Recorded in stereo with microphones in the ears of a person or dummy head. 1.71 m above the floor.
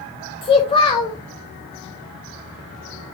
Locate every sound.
0.4 s a child speaking: 25° left (ahead or behind), 0.7 m